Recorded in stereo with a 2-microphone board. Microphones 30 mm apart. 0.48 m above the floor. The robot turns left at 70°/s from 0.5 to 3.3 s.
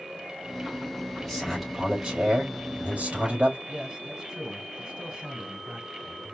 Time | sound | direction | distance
1.2 | a man speaking | 15° left | 2.5 m
3.7 | a man speaking | 30° right (ahead or behind) | 2.0 m